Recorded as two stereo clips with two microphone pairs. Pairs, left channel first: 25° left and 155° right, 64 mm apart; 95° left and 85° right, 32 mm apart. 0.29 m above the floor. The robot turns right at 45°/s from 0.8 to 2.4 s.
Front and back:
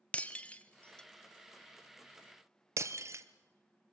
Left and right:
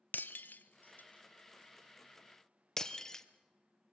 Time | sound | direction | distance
0.1 | breaking glass | 95° left | 0.9 m